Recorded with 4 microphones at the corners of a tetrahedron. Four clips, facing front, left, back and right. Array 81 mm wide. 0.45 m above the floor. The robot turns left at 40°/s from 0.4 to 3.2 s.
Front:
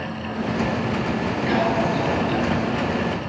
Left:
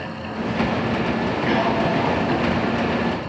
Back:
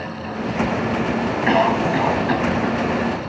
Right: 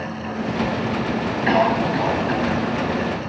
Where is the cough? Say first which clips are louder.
Right 3 dB, back 4 dB; 145° right, 3.5 m; by 3.1 s 150° left, 3.5 m.